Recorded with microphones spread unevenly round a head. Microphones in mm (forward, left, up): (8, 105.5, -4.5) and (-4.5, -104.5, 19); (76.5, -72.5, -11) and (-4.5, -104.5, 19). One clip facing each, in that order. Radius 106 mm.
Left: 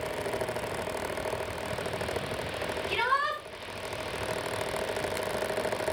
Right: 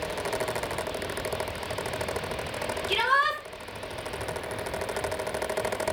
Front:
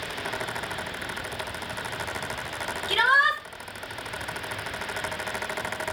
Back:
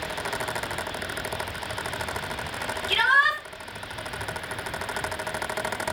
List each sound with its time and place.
2.9 s a shout: 45° right, 4 m